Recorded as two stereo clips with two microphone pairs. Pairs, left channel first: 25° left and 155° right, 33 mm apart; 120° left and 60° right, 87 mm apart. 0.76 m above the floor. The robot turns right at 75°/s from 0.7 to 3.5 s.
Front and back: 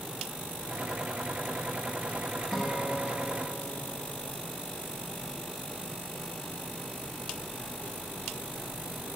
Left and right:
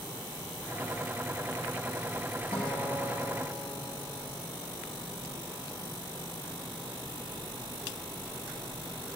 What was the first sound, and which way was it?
A guitar, 105° left.